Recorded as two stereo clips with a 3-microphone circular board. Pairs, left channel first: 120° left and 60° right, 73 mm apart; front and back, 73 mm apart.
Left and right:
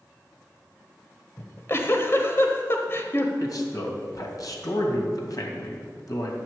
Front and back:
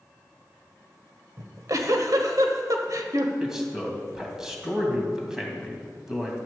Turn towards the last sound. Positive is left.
turn(degrees=100)